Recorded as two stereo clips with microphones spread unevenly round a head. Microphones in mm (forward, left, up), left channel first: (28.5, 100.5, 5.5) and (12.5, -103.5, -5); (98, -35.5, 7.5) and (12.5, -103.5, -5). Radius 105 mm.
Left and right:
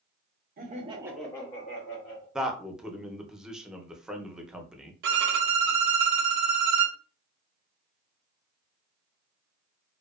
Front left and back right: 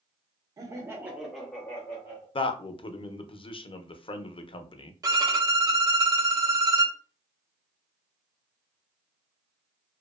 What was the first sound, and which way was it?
Laughter, 110° right.